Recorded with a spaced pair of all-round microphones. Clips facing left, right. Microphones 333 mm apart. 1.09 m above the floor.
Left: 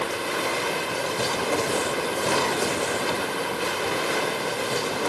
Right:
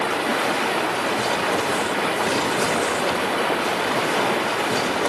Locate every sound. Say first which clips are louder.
0.0 s running water: right 5 dB; 80° right